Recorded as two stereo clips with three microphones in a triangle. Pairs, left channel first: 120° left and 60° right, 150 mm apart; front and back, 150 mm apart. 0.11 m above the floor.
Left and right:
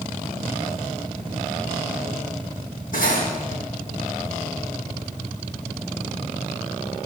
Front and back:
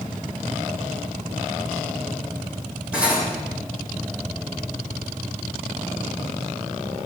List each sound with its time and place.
2.9 s cutlery clinking: 100° left, 3 m